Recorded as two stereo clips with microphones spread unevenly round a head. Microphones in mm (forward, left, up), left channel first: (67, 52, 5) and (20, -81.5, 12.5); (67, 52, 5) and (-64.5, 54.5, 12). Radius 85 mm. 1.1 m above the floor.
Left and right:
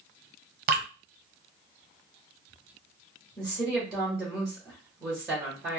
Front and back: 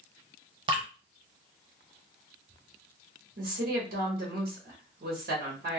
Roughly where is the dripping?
Behind right.